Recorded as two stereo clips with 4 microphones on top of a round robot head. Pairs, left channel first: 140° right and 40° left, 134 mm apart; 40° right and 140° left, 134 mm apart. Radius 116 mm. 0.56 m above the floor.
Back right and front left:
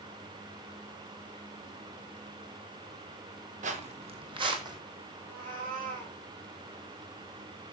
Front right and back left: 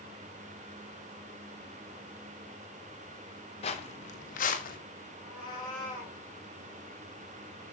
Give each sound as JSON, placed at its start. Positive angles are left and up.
{"t": 3.6, "sound": "footsteps", "azimuth_deg": 5, "distance_m": 1.2}
{"t": 5.2, "sound": "a cat meowing", "azimuth_deg": 20, "distance_m": 8.0}